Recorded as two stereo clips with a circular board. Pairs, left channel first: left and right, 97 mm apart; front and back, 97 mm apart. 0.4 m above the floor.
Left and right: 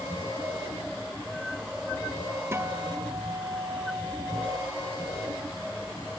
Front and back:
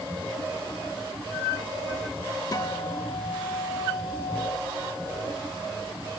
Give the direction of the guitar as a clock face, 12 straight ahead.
1 o'clock.